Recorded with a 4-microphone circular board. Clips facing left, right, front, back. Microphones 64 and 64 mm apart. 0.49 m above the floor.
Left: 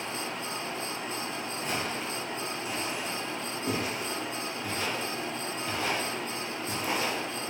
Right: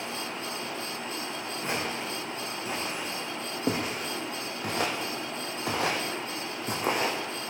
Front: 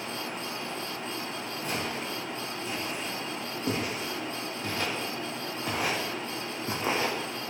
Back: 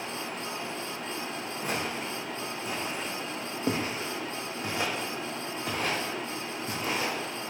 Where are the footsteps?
145° right, 3 m; by 7.2 s 55° right, 1.8 m.